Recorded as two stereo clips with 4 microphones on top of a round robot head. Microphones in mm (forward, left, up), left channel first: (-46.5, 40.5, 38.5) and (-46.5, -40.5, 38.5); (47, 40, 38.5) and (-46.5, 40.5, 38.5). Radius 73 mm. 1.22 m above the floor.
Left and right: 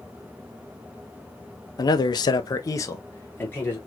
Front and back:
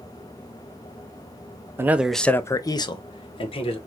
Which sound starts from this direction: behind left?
A man speaking, at 1.8 s.